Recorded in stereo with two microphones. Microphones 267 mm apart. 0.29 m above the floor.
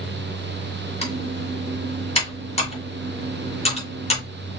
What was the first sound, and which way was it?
Typing on a keyboard, 25° left (ahead or behind).